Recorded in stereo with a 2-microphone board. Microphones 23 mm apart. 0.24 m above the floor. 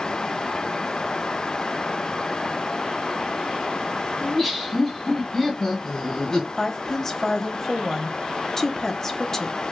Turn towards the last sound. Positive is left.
turn(degrees=20)  # may be behind; listen again after turning